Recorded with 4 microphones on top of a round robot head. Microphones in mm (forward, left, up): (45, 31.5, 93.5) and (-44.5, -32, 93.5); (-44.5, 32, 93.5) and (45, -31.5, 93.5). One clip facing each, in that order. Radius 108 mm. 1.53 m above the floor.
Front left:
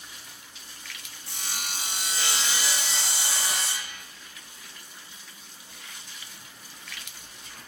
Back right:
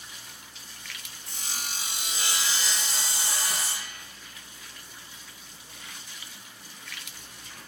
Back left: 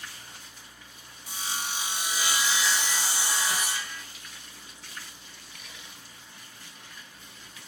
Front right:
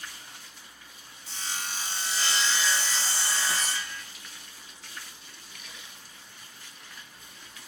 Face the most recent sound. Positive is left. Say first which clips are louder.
# front left 2 dB, back left 2 dB
turn(degrees=65)